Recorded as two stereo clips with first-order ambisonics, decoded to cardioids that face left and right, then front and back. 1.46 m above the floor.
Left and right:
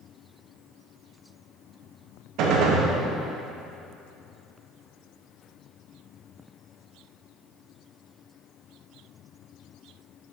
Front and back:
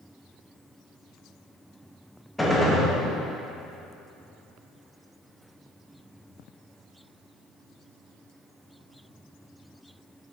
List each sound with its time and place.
2.4 s a gunshot: 85° right, 1.0 m